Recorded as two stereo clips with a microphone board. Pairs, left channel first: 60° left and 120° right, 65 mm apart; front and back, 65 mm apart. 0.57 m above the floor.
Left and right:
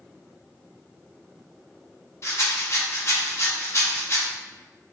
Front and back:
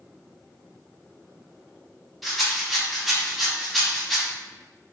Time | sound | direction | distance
2.2 | a rattle | 90° left | 0.6 m